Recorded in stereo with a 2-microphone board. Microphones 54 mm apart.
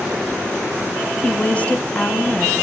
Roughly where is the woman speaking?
Left.